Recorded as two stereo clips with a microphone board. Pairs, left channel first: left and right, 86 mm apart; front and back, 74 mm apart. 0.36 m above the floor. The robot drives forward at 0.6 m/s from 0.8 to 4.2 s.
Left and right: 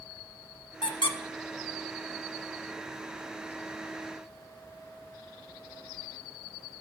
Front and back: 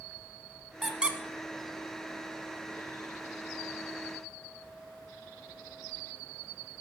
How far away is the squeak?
About 0.7 m.